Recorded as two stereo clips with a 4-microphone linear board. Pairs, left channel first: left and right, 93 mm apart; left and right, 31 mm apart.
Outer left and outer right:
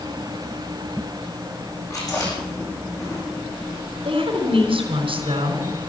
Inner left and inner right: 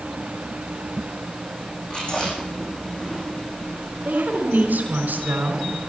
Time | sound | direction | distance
1.9 | chewing | 35° left (ahead or behind) | 8.5 m
4.0 | a woman speaking | 70° right (ahead or behind) | 4 m